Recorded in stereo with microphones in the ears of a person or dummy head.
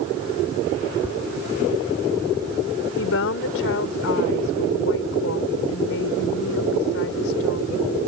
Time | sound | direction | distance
1.0 | tapping | 10° right (ahead or behind) | ?
3.0 | a woman speaking | 70° left (ahead or behind) | ?